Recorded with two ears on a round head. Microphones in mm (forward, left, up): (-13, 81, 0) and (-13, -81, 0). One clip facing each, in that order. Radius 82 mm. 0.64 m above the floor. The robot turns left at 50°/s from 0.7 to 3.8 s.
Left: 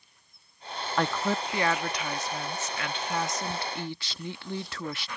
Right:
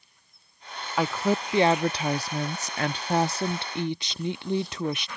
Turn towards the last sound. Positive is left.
turn(degrees=-150)